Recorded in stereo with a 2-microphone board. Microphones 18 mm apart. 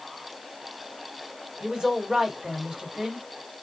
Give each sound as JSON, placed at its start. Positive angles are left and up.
{"t": 1.6, "sound": "a woman speaking", "side_deg": -55, "distance_m": 1.5}